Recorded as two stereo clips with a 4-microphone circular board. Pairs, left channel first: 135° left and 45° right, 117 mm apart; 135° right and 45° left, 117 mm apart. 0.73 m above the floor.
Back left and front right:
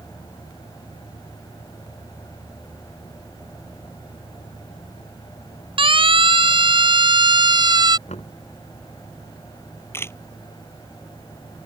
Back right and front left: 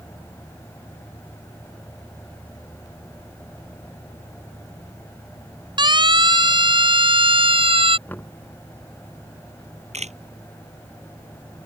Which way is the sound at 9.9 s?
65° left.